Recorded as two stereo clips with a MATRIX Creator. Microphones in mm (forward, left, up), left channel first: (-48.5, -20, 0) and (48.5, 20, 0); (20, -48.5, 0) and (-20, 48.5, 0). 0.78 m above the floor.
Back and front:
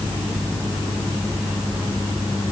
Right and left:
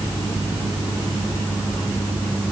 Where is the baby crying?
No baby crying in this recording.